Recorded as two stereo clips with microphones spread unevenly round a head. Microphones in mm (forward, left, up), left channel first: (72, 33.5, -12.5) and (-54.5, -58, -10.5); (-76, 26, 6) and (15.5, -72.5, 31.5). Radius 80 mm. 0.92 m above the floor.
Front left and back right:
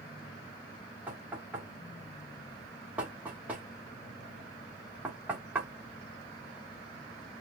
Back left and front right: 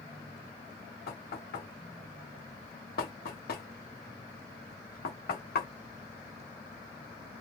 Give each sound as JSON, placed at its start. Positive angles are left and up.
{"t": 1.1, "sound": "knocking", "azimuth_deg": 135, "distance_m": 1.6}